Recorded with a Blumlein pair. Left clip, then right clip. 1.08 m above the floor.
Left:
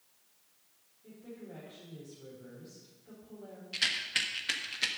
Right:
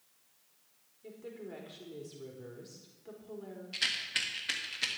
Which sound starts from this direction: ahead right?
A woman speaking, at 1.0 s.